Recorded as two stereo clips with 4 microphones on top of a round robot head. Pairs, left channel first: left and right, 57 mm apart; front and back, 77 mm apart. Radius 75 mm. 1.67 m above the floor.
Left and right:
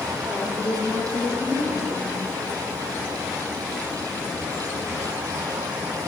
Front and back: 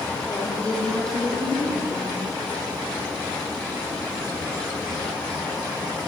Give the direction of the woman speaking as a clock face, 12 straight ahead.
10 o'clock.